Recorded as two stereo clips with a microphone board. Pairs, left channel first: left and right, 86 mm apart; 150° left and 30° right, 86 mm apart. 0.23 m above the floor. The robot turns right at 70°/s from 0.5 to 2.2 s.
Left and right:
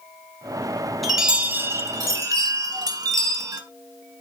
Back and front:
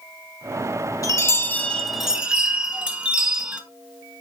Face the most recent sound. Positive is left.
turn(degrees=-100)